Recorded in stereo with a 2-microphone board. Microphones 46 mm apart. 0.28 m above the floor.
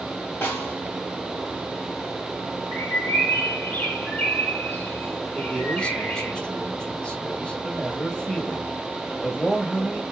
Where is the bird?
45° left (ahead or behind), 2 m.